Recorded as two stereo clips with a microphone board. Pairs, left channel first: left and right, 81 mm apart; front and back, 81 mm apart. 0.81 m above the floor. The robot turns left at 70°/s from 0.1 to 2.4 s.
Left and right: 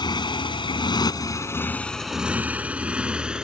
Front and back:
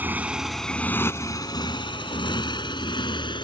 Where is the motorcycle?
110° left; by 3.5 s 10° right.